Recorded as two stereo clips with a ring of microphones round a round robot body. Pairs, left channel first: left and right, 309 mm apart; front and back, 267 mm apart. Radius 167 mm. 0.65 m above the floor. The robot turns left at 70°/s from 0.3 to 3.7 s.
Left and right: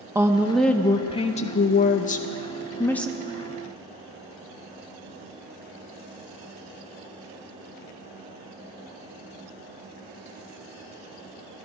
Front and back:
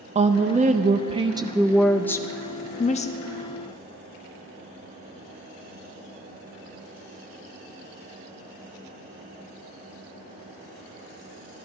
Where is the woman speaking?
160° right, 0.5 m; by 3.1 s straight ahead, 0.5 m.